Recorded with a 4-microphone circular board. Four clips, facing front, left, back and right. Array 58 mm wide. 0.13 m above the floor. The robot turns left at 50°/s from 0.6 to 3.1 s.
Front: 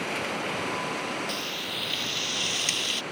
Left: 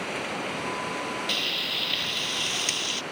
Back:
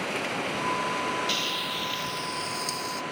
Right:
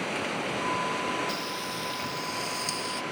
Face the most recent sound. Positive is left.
turn(degrees=20)